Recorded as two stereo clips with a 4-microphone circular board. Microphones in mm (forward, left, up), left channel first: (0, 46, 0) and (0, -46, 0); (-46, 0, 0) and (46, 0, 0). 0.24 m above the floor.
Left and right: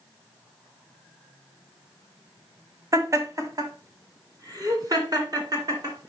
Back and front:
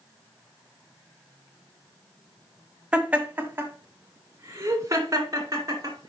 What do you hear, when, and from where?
2.9 s laughter: 70° right, 1.1 m; by 6.1 s 50° right, 2.5 m